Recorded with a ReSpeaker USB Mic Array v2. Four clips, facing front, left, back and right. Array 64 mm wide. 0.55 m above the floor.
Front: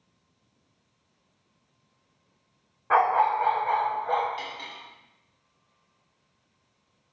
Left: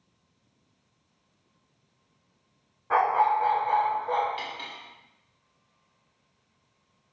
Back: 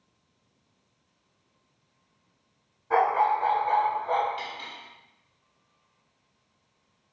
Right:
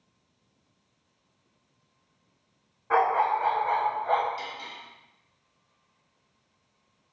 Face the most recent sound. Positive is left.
turn(degrees=95)